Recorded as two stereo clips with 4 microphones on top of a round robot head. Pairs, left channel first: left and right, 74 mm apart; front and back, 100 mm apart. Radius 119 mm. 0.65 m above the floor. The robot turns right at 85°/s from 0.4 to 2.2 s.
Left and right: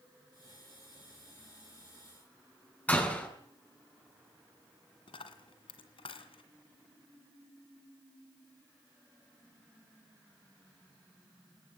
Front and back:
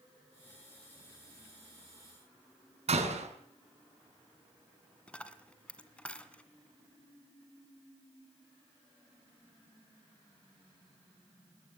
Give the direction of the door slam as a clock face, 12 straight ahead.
7 o'clock.